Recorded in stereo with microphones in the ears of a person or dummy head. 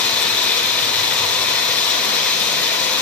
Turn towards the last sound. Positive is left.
turn(degrees=5)  # may be behind; listen again after turning